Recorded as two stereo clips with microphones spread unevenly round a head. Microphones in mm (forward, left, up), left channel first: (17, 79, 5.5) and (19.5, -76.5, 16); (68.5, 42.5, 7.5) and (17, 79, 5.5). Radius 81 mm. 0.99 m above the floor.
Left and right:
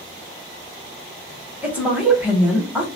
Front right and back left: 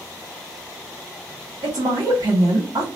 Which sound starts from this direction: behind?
A woman speaking, at 1.6 s.